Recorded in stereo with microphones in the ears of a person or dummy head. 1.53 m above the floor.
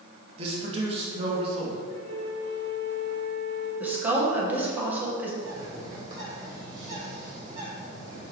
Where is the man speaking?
35° right (ahead or behind), 1.7 m.